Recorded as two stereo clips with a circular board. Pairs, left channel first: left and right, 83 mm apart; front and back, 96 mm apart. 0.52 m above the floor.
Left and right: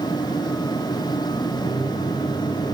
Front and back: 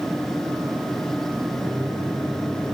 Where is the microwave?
95° left, 5 m.